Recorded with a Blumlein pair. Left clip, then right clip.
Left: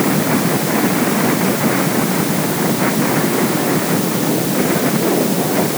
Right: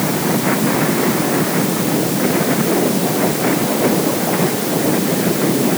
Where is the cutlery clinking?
No cutlery clinking in this recording.